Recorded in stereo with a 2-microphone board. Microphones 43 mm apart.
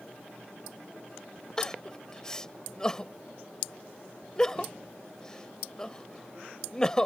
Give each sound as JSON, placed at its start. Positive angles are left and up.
{"t": 1.6, "sound": "crying", "side_deg": 15}